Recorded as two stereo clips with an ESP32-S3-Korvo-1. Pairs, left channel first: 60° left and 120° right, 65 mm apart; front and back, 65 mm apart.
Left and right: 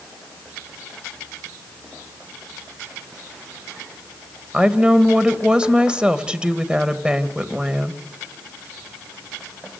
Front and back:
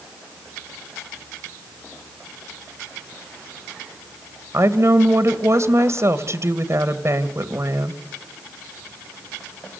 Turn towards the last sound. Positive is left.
turn(degrees=170)